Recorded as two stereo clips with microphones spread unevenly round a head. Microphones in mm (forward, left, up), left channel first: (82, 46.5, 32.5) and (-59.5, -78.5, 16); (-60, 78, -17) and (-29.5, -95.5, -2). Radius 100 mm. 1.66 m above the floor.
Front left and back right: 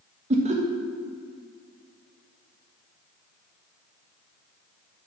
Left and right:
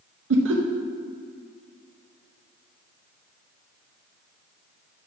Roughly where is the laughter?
Right.